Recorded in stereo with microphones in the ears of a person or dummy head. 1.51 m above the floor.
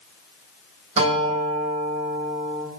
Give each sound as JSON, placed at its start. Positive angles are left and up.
{"t": 1.0, "sound": "a guitar", "side_deg": -45, "distance_m": 2.5}